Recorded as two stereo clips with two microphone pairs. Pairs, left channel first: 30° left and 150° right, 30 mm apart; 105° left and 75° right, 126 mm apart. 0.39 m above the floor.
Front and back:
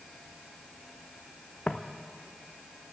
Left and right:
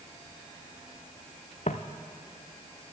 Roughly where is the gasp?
No gasp in this recording.